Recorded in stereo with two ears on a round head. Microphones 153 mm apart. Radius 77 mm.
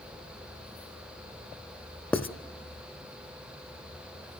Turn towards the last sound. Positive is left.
turn(degrees=10)  # may be behind; listen again after turning